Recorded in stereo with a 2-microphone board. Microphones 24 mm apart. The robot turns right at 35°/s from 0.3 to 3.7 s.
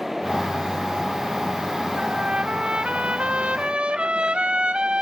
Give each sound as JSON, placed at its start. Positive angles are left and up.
{"t": 2.0, "sound": "a trumpet", "azimuth_deg": -125, "distance_m": 0.6}